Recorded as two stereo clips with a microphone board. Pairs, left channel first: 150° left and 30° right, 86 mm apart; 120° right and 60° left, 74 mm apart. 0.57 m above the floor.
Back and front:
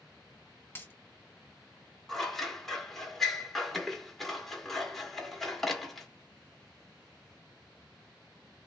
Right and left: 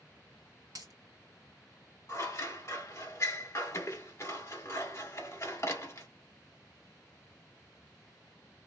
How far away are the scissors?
About 1.0 m.